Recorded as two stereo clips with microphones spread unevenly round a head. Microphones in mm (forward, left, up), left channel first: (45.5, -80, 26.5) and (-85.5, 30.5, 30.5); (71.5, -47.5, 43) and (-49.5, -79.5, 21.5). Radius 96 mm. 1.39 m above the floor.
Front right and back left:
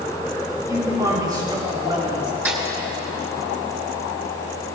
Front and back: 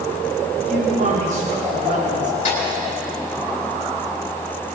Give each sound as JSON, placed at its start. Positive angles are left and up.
{"t": 0.7, "sound": "a man speaking", "azimuth_deg": -150, "distance_m": 3.5}
{"t": 2.5, "sound": "a snare drum", "azimuth_deg": 65, "distance_m": 2.5}